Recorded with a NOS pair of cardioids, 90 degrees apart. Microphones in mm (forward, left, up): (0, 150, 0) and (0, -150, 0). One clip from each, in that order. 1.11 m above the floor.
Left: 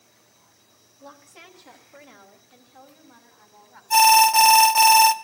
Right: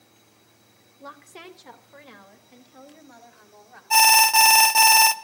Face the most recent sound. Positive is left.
turn(degrees=-10)